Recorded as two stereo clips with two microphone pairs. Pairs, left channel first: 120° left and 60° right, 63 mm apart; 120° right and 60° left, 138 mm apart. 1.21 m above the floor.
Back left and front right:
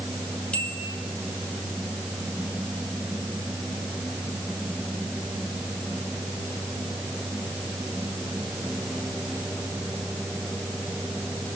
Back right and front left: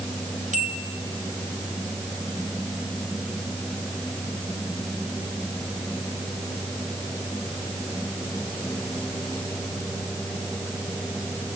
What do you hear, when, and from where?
0.5 s a bell: 50° left, 2.5 m